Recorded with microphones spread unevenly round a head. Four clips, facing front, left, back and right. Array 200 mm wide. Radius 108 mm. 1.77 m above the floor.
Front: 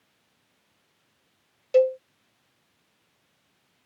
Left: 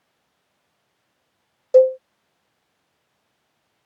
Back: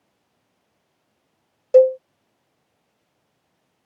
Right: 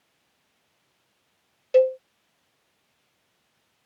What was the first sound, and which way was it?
A cowbell, 150° left.